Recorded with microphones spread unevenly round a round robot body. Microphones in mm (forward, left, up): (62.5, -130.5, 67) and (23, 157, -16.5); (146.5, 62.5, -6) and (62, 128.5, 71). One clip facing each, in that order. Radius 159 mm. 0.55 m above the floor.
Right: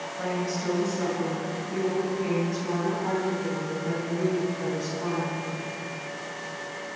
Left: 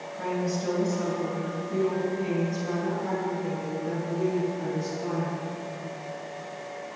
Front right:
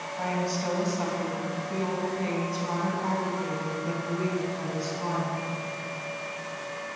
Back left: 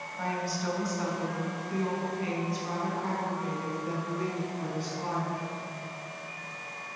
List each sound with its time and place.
0.1 s a woman speaking: 10° left, 3 m; by 5.4 s 15° right, 5.5 m